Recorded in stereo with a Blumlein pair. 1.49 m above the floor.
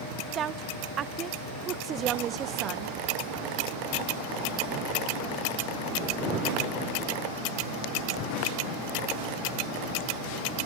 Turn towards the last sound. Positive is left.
turn(degrees=-25)